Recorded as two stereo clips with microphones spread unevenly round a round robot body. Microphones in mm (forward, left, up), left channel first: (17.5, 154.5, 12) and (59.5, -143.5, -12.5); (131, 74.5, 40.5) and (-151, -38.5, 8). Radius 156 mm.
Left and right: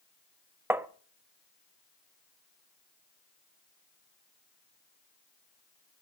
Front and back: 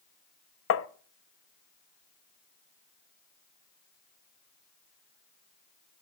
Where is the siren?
I don't hear a siren.